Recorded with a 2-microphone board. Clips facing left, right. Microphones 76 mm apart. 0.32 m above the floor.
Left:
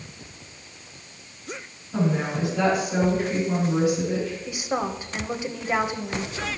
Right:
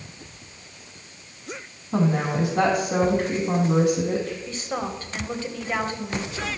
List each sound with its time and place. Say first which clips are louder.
1.9 s a woman speaking: right 2 dB; 65° right (ahead or behind), 3 m
4.5 s a woman speaking: left 2 dB; 10° left (ahead or behind), 1.2 m